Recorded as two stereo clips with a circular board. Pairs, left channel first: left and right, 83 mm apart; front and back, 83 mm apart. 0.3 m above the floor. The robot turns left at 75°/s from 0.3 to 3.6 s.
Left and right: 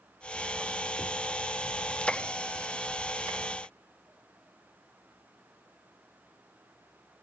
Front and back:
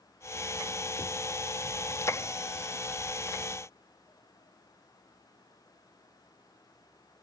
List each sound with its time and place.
Only background noise.